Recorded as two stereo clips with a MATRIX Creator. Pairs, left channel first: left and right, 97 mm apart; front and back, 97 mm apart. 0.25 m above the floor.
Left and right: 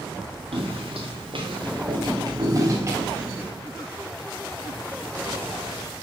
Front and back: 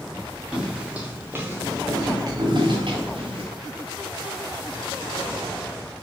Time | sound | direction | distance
0.5 | footsteps | 95° right | 3.5 m